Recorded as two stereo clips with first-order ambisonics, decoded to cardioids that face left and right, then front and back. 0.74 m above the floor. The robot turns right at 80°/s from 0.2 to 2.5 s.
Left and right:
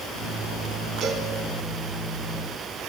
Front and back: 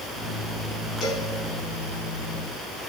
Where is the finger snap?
No finger snap in this recording.